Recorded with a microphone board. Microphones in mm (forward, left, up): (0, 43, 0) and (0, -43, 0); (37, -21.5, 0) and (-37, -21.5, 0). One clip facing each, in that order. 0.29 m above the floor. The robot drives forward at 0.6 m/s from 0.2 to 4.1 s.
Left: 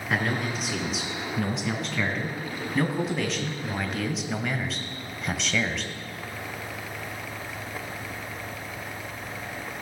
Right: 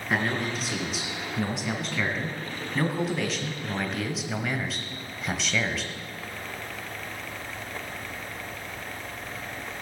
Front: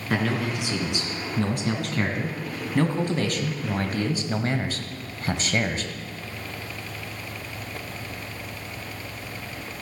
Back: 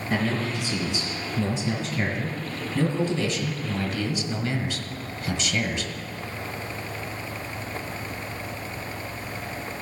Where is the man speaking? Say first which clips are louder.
Even, front 1 dB; straight ahead, 3.5 m.